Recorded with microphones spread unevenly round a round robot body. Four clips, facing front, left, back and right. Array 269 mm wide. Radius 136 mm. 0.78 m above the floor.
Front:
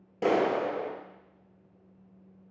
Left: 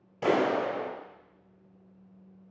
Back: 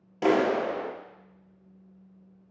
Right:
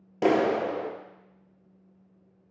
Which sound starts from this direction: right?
A clap, at 0.2 s.